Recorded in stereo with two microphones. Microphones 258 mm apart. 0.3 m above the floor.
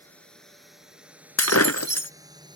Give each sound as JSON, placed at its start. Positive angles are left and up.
{"t": 0.0, "sound": "a drone", "side_deg": 5}
{"t": 1.4, "sound": "breaking glass", "side_deg": 65}